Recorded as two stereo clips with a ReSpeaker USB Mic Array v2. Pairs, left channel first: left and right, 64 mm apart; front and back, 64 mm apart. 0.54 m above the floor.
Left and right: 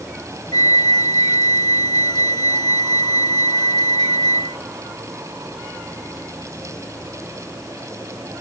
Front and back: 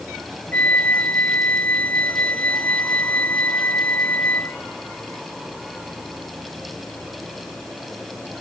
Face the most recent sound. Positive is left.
turn(degrees=70)